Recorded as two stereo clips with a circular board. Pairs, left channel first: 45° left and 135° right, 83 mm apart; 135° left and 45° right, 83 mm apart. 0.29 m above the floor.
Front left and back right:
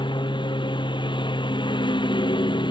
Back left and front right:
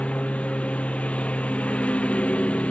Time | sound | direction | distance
0.0 | a lawn mower | 60° left | ?